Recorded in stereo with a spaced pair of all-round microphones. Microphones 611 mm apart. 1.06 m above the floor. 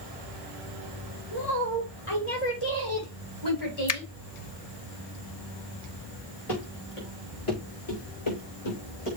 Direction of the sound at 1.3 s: 70° left (ahead or behind).